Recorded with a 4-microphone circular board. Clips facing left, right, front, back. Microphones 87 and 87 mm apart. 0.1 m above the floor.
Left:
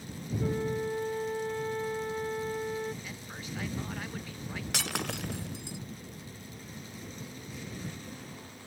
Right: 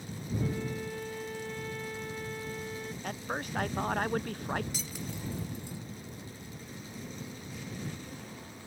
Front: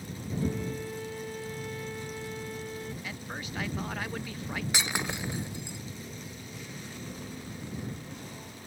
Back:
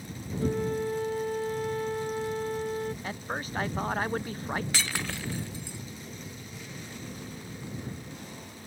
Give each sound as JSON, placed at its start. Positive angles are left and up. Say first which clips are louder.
{"t": 0.4, "sound": "a flute", "louder": "left 5 dB, back 5 dB", "azimuth_deg": 145}
{"t": 3.0, "sound": "a man speaking", "louder": "right 7 dB, back 4 dB", "azimuth_deg": -130}
{"t": 4.7, "sound": "breaking glass", "louder": "left 5 dB, front 1 dB", "azimuth_deg": 70}